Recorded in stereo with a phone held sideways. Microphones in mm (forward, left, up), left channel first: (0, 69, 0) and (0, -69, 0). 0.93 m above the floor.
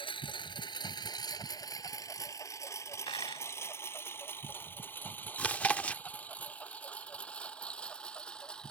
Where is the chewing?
10° left (ahead or behind).